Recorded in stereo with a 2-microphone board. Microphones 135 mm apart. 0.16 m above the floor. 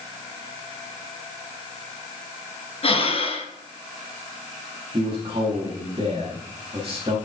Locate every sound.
2.8 s breathing: 45° left (ahead or behind), 1.9 m
4.9 s a man speaking: 45° right (ahead or behind), 5.5 m